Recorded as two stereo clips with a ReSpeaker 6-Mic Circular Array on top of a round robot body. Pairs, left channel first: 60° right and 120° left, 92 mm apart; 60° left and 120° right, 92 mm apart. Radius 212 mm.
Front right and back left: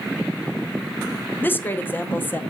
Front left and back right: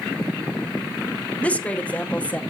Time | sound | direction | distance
1.4 | a woman speaking | 5° right | 1.2 m